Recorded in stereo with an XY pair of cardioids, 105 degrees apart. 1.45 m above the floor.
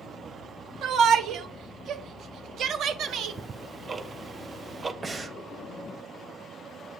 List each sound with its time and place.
0.8 s a shout: 70° right, 1.2 m
3.1 s ticking: 30° right, 0.6 m
5.0 s breathing: 30° right, 1.3 m